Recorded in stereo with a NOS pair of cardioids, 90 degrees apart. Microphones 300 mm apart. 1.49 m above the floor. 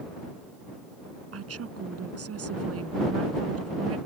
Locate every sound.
1.3 s a woman speaking: 50° right